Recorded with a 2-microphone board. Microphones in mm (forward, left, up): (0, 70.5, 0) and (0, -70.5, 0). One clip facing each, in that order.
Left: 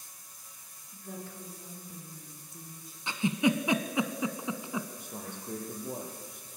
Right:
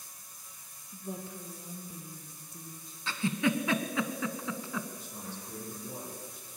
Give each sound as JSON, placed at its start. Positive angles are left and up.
{"t": 0.9, "sound": "a woman speaking", "side_deg": -25, "distance_m": 3.0}
{"t": 3.1, "sound": "a giggle", "side_deg": 20, "distance_m": 1.1}
{"t": 5.0, "sound": "a man speaking", "side_deg": 55, "distance_m": 5.0}